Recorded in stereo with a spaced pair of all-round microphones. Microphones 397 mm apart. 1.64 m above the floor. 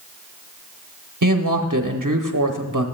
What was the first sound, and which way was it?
A woman speaking, 55° right (ahead or behind).